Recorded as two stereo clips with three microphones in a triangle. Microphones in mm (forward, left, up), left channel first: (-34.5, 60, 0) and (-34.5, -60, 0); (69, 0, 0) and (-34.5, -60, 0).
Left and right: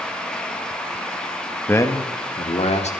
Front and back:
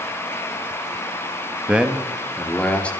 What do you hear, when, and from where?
1.7 s a man speaking: 145° left, 1.0 m; by 2.9 s 110° left, 2.5 m